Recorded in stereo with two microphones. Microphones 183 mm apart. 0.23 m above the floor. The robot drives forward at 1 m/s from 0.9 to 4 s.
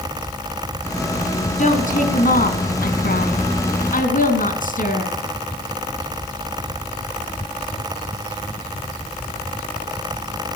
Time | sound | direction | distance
1.6 | a woman speaking | 45° left (ahead or behind) | 2.5 m